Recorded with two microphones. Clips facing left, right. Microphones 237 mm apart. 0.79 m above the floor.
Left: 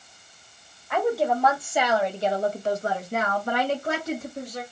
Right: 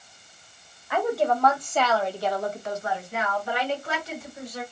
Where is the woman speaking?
Centre (ahead or behind), 1.3 m; by 4.6 s 45° left (ahead or behind), 1.5 m.